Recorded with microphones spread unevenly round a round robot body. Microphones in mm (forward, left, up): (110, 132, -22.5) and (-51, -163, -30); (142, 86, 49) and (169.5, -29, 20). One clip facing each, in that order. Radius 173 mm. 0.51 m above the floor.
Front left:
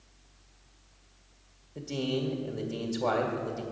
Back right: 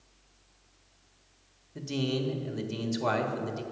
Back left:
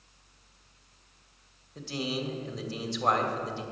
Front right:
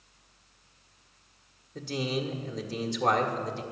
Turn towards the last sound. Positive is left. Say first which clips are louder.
# even, front right 2 dB
turn(degrees=-75)